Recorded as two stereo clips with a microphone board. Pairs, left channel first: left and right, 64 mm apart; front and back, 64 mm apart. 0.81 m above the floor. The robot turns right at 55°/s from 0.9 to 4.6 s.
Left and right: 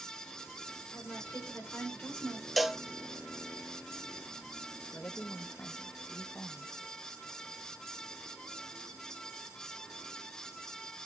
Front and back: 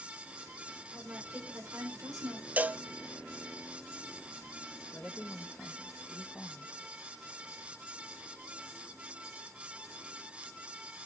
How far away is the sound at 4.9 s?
About 1.0 m.